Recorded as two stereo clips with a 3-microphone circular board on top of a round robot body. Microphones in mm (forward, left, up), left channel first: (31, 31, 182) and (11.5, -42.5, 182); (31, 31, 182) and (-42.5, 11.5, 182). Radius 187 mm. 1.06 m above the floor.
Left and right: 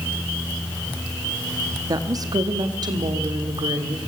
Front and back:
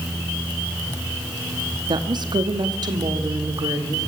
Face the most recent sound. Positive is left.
turn(degrees=-130)